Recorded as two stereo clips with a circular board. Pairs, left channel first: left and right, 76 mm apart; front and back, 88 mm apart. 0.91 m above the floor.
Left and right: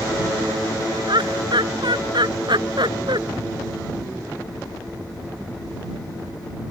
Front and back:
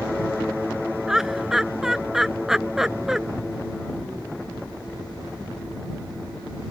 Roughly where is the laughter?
Right.